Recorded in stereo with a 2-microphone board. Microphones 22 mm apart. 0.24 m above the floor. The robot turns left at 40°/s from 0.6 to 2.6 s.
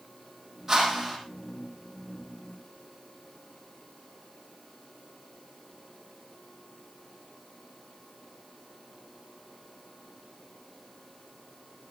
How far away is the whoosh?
About 7 m.